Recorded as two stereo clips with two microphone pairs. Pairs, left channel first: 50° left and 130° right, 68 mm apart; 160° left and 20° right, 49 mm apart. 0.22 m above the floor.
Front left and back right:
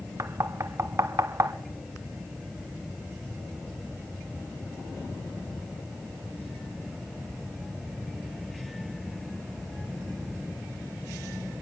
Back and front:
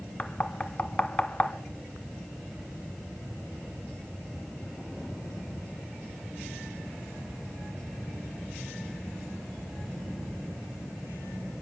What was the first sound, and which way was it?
Knocking, 140° right.